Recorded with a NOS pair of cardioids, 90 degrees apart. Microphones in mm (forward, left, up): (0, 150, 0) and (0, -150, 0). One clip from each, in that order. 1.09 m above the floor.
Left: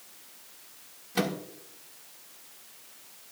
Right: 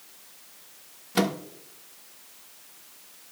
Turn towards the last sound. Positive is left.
turn(degrees=-25)